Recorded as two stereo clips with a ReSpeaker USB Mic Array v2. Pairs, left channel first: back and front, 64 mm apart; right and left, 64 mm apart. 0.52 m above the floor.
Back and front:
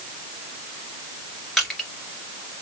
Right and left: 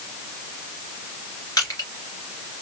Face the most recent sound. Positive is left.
turn(degrees=-95)